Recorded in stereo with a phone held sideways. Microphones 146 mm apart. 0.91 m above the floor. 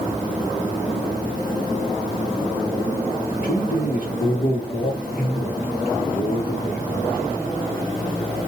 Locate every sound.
3.3 s a man speaking: 70° left (ahead or behind), 1.2 m